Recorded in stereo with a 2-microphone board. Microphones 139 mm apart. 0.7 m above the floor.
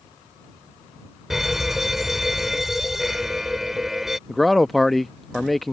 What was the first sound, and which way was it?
A fire alarm, centre (ahead or behind).